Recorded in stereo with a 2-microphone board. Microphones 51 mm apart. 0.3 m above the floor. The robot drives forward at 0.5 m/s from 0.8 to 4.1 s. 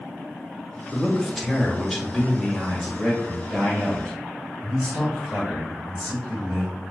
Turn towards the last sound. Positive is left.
turn(degrees=0)  # may be behind; listen again after turning